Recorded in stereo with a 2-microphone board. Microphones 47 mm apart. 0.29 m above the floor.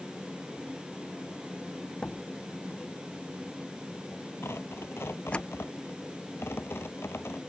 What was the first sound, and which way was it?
A door slam, 25° left (ahead or behind).